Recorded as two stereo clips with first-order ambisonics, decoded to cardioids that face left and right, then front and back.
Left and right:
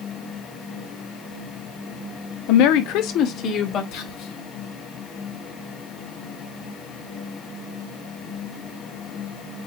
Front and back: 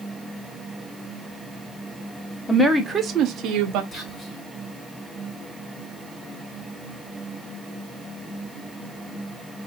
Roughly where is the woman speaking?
Left.